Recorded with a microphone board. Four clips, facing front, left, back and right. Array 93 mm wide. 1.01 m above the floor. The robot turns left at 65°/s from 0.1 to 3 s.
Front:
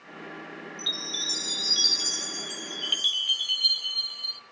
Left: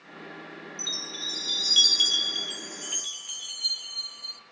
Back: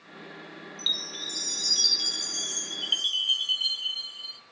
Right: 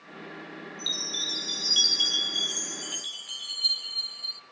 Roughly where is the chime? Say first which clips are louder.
Right 1 dB, even; behind.